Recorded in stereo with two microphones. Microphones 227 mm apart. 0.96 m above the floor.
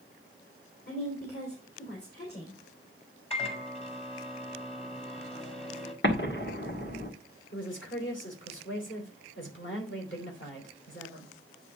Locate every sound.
0.9 s a woman speaking: 50° left (ahead or behind), 3 m
3.3 s a microwave: 25° left (ahead or behind), 1.7 m
6.0 s an explosion: 55° left (ahead or behind), 1.8 m
7.5 s a woman speaking: 60° left (ahead or behind), 4 m